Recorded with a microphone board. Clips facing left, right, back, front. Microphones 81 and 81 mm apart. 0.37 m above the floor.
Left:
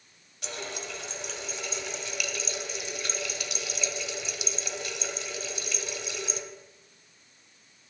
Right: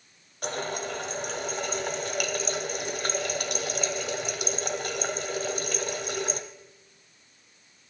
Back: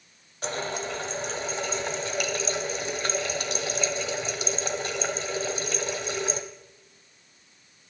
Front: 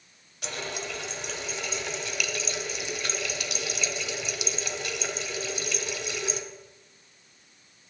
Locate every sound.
0.4 s a running tap: 130° right, 1.3 m